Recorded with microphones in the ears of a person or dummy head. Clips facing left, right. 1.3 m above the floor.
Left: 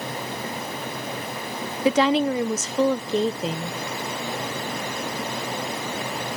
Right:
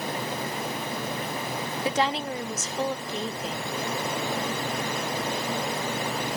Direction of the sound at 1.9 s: 50° left (ahead or behind).